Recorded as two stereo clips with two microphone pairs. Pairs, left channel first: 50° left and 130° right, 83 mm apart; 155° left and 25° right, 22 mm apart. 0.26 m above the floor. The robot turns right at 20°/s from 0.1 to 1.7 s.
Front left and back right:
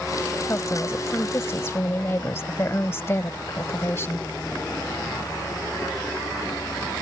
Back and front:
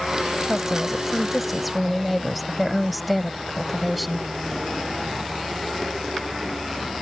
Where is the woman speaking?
40° left; by 4.3 s 65° left.